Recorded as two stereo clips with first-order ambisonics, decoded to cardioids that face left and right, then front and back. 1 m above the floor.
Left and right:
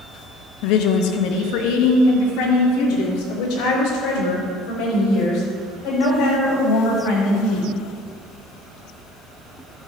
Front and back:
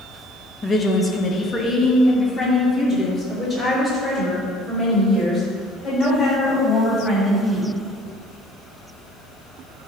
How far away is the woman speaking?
About 0.9 m.